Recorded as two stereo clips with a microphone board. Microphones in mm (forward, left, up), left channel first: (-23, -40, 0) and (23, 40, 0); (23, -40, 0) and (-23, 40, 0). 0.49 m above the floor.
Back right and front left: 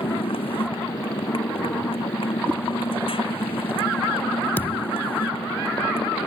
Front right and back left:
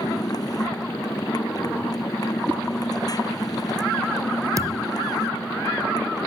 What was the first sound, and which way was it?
A motorcycle, 105° right.